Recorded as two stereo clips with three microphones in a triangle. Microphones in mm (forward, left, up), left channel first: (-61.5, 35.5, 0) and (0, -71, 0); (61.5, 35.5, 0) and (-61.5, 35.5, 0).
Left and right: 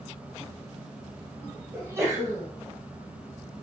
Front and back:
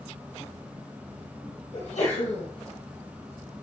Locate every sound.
0.0 s an insect: 105° right, 2 m
1.7 s a sneeze: 5° left, 2.5 m